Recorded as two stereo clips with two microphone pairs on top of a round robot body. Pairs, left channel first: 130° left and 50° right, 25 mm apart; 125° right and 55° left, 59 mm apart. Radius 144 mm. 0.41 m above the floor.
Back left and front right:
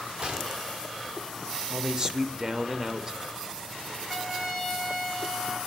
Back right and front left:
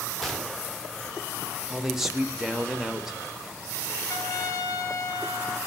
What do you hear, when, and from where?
0.2 s a gunshot: 30° right, 1.7 m
1.7 s a man speaking: 5° right, 1.1 m
4.1 s a trumpet: 115° right, 2 m